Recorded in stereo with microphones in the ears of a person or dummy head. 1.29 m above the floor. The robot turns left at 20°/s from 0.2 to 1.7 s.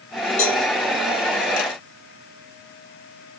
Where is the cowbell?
35° left (ahead or behind), 0.7 m.